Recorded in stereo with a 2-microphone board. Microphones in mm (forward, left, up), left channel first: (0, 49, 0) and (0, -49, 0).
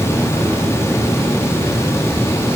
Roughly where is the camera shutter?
No camera shutter in this recording.